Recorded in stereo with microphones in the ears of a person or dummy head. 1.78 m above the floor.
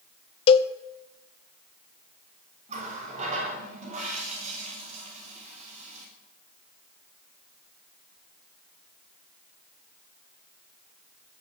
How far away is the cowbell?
About 0.7 m.